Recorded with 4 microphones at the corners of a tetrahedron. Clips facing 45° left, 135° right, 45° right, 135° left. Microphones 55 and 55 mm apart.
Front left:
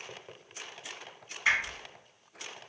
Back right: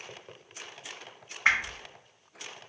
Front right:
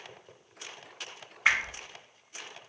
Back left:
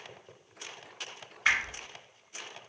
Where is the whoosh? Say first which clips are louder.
Back right 2 dB, front right 1 dB; 105° right, 1.1 m.